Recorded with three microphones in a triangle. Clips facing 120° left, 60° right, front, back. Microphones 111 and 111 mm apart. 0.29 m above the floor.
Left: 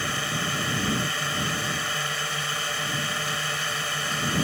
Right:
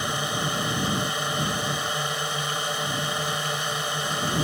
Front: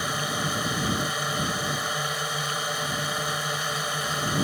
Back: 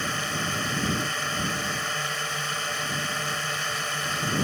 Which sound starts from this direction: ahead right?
A drone, at 0.0 s.